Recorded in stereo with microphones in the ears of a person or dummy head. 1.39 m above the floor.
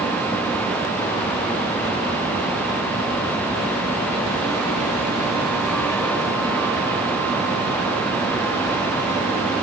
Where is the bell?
I don't hear a bell.